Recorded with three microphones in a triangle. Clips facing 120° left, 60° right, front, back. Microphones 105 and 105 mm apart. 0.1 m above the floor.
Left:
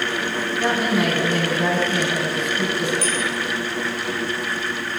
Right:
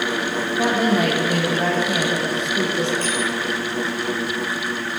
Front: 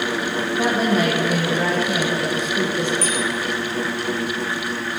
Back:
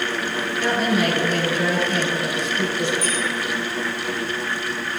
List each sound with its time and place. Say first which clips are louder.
0.6 s a woman speaking: right 2 dB, front 1 dB; 40° right, 5.5 m
3.0 s a bicycle bell: even, front 1 dB; 15° right, 5.5 m